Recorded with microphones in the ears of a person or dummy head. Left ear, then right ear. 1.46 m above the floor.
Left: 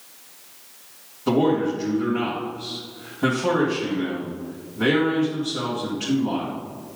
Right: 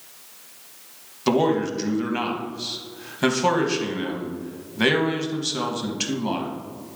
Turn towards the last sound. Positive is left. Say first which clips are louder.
# even
turn(degrees=-70)  # may be behind; listen again after turning